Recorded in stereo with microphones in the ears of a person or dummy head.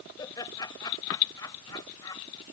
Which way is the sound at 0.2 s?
25° left (ahead or behind).